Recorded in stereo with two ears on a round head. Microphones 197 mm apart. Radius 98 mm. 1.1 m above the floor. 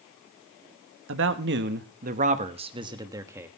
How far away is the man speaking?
About 1.4 m.